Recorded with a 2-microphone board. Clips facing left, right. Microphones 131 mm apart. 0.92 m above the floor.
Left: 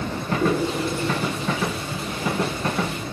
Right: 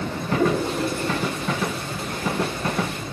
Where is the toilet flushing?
50° right (ahead or behind), 9.5 m.